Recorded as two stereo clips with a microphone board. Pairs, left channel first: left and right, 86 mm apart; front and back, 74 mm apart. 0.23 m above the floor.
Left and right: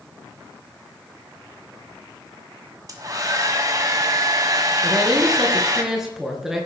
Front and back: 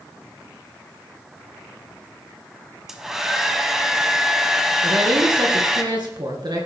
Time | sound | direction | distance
2.9 | a hair dryer | 100° right | 1.4 m
4.8 | a woman speaking | 175° right | 2.5 m